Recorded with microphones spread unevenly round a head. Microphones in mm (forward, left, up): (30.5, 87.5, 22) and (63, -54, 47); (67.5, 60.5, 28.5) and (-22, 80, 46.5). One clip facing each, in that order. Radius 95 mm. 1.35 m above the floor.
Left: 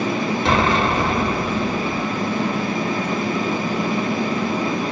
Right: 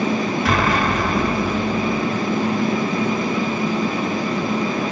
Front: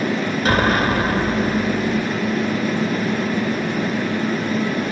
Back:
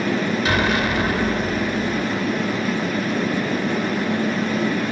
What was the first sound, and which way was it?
An explosion, 40° left.